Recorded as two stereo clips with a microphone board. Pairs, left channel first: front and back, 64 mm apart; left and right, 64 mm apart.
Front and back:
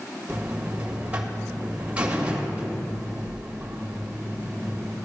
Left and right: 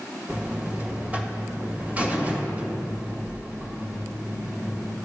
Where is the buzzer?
130° right, 1.6 m.